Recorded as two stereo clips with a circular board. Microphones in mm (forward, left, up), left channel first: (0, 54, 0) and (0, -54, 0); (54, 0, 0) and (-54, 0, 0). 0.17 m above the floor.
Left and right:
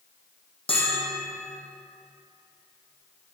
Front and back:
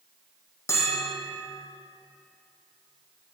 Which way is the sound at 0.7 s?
65° left.